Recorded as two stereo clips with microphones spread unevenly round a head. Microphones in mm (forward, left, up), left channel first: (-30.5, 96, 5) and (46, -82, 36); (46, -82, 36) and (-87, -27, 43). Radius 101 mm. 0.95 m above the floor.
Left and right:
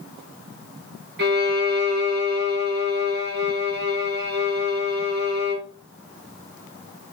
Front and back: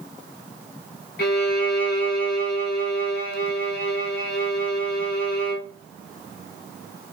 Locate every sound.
1.2 s a violin: 25° right, 0.8 m